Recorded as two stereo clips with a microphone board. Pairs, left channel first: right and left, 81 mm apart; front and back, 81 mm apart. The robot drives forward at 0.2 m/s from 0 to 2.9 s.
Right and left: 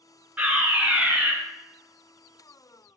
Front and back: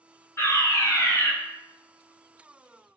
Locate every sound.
0.4 s a fire alarm: 30° left, 1.7 m; by 1.3 s 35° left, 1.6 m